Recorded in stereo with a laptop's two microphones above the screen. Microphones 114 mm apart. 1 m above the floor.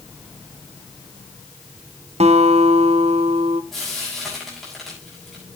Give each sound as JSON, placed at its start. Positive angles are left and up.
{"t": 2.2, "sound": "a guitar", "side_deg": -70, "distance_m": 0.8}
{"t": 3.7, "sound": "frying", "side_deg": 0, "distance_m": 5.5}